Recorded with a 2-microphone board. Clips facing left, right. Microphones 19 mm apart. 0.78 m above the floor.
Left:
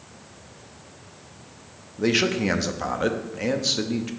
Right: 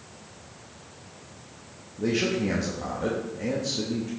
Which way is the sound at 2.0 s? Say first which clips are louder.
Left 4 dB; 50° left (ahead or behind).